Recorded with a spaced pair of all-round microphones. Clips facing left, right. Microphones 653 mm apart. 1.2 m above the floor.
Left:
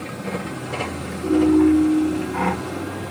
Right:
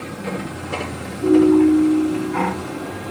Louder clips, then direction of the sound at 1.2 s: Right 3 dB; 85° right.